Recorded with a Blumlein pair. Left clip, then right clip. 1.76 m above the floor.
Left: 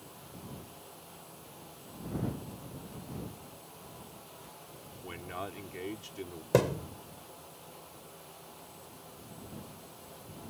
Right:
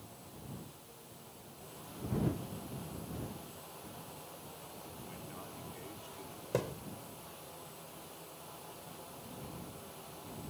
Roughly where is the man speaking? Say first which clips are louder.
Left 13 dB; ahead left.